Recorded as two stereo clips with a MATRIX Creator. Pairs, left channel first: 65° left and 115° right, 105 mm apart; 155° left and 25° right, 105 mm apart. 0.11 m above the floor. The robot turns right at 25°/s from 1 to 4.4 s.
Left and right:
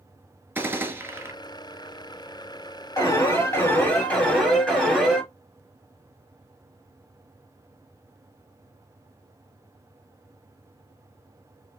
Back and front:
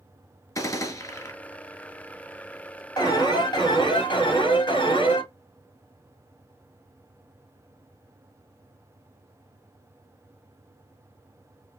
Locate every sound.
0.6 s a gunshot: 170° right, 1.1 m; by 1.3 s 160° right, 1.1 m
3.0 s an alarm: 115° left, 3 m; by 5.2 s 150° left, 3 m